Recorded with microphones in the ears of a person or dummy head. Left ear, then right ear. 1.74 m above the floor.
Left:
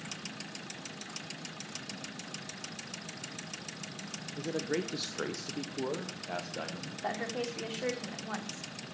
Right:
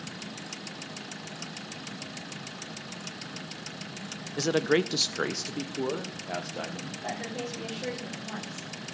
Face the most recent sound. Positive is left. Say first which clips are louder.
# left 1 dB
turn(degrees=35)  # may be behind; listen again after turning